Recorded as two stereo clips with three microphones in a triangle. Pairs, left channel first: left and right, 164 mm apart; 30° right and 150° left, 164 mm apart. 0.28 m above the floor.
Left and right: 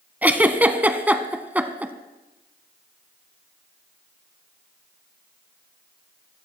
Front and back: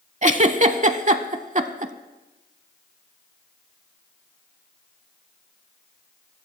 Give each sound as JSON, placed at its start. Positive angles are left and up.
{"t": 0.2, "sound": "a giggle", "azimuth_deg": -170, "distance_m": 0.7}